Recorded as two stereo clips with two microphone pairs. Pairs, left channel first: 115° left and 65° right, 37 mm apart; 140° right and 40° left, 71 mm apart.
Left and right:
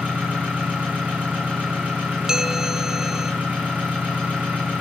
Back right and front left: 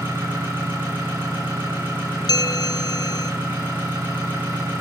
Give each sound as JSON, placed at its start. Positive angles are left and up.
{"t": 0.0, "sound": "an engine running", "azimuth_deg": -20, "distance_m": 6.5}
{"t": 2.3, "sound": "a bell", "azimuth_deg": -140, "distance_m": 0.7}